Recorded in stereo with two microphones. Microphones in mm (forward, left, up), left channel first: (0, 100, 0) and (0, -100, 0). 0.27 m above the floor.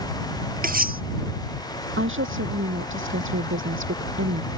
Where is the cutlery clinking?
45° right (ahead or behind).